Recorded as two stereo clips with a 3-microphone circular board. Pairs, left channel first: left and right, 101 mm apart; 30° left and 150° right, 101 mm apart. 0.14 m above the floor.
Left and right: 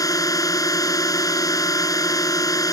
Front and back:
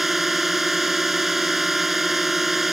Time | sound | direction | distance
0.0 | a drone | 125° left | ?